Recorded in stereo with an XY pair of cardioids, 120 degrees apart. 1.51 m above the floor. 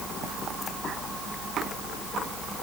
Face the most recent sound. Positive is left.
No sound to turn to.